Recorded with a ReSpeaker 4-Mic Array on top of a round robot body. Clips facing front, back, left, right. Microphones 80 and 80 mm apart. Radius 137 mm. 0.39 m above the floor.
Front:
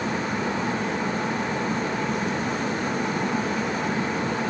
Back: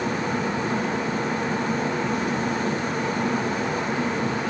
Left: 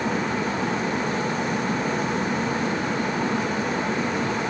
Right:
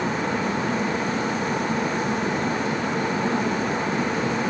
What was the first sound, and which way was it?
Only background noise.